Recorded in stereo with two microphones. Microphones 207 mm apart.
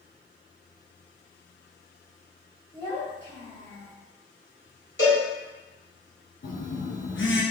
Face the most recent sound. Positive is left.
turn(degrees=75)  # may be behind; listen again after turning